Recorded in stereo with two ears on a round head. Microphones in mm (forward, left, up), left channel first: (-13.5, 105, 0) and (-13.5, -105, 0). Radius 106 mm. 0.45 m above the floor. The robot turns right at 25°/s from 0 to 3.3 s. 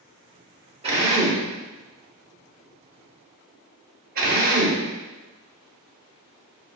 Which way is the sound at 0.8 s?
25° right (ahead or behind).